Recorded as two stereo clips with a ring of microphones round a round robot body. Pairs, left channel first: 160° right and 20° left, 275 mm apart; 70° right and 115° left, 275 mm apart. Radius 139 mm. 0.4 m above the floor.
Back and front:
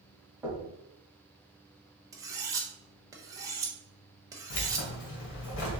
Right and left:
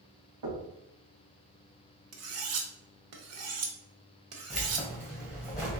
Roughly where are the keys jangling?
Behind.